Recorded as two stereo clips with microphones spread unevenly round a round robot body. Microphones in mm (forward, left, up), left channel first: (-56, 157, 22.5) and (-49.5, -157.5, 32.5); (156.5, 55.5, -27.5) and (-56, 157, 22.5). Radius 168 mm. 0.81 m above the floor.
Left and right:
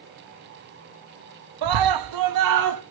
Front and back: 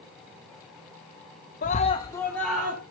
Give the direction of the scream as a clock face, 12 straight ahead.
3 o'clock.